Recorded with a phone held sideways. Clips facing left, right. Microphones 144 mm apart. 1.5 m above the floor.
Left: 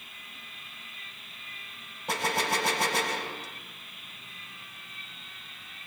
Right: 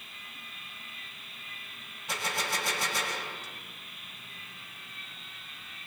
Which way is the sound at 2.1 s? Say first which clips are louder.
Left 6 dB; 65° left (ahead or behind).